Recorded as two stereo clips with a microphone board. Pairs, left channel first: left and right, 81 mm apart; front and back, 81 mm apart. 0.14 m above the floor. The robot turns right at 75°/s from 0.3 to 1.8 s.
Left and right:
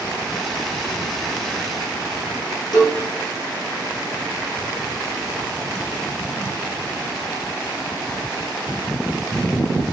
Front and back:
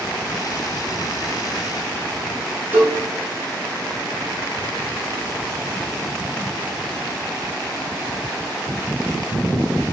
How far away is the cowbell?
About 1.5 m.